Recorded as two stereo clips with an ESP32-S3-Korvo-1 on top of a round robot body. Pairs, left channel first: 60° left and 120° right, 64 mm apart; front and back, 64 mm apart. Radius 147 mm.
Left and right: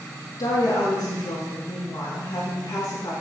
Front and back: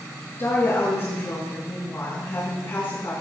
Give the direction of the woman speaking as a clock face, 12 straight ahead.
10 o'clock.